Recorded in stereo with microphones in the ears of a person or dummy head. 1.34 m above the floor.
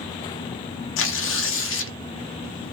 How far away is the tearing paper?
About 0.7 m.